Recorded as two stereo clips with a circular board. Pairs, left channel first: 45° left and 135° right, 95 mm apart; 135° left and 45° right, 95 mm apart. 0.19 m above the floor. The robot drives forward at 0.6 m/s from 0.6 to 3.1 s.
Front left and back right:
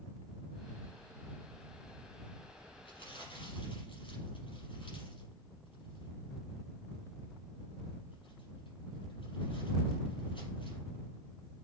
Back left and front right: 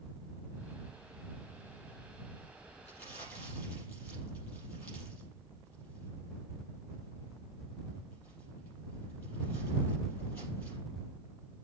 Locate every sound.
2.9 s crumpling: 70° left, 5.5 m; by 10.8 s 75° left, 5.5 m